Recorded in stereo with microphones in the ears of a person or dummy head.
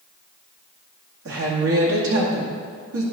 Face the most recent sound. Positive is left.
turn(degrees=-70)  # may be behind; listen again after turning